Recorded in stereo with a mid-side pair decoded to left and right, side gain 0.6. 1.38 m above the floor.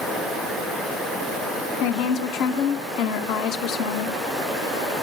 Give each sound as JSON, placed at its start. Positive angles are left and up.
{"t": 1.8, "sound": "a woman speaking", "azimuth_deg": 65, "distance_m": 2.0}